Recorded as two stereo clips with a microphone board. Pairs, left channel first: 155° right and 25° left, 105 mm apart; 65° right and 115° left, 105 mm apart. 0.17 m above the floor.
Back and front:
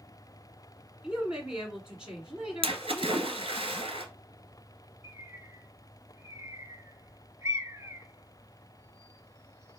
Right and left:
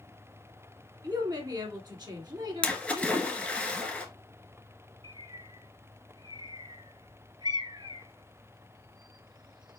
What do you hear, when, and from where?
1.0 s a woman speaking: 100° left, 1.7 m
2.6 s a splash: 10° left, 1.2 m
5.0 s a bird: 80° left, 0.8 m